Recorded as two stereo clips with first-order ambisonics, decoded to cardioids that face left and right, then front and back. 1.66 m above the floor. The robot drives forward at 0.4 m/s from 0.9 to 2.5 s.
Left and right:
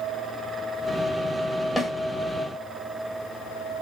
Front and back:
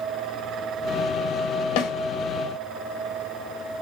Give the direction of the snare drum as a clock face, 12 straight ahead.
12 o'clock.